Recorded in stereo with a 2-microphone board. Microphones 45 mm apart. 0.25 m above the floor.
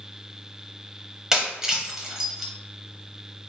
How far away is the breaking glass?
About 0.8 m.